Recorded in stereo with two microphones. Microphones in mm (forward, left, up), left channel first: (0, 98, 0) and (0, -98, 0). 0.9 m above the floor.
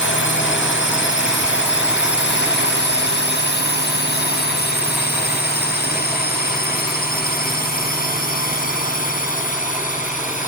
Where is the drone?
75° left (ahead or behind); by 10.5 s 40° left (ahead or behind).